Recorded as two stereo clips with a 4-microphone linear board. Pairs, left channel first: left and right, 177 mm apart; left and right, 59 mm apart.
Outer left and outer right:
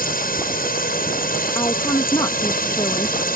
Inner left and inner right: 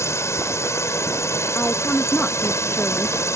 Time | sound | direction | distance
0.0 | a drone | 55° left (ahead or behind) | ?
1.6 | a woman speaking | 20° left (ahead or behind) | ?